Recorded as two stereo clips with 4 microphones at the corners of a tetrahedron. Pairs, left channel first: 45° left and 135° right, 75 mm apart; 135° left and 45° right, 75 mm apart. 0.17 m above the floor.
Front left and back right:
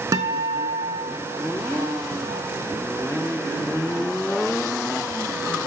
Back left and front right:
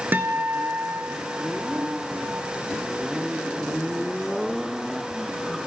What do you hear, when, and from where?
0.1 s a guitar: 105° right, 0.6 m